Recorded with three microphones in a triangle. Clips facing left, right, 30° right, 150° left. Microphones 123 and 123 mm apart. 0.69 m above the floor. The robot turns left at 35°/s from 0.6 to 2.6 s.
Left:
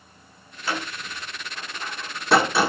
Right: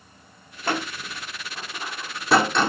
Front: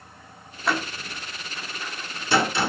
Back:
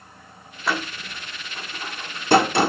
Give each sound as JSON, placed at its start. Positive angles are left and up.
{"t": 0.7, "sound": "a door slam", "azimuth_deg": -120, "distance_m": 1.3}